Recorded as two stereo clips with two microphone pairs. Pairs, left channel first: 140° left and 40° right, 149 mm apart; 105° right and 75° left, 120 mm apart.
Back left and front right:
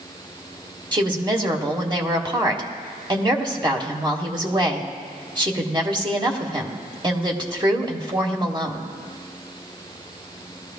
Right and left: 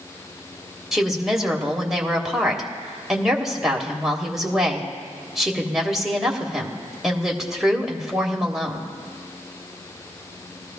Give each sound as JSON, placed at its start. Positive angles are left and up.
{"t": 0.9, "sound": "a woman speaking", "azimuth_deg": -10, "distance_m": 1.3}